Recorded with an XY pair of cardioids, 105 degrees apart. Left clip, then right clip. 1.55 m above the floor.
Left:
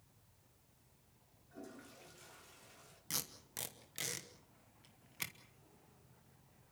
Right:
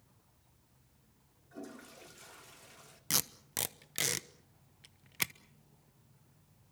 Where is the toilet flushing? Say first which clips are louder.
Right 5 dB; 40° right, 2.5 m.